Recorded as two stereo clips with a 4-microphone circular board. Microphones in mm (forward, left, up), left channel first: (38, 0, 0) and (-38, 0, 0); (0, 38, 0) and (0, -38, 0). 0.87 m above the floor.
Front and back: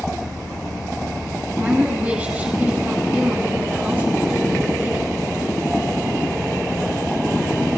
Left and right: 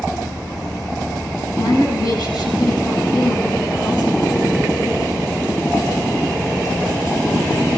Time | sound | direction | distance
1.6 | a woman speaking | 110° left | 9 m